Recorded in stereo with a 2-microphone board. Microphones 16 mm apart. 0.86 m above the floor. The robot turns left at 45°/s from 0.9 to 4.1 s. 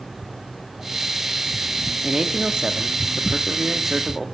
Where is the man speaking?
60° right, 1.6 m; by 4.2 s 155° right, 1.6 m.